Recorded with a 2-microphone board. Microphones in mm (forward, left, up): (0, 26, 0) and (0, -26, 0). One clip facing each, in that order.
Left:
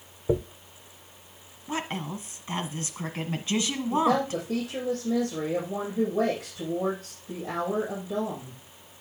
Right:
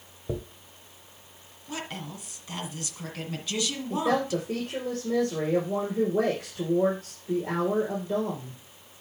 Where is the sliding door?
No sliding door in this recording.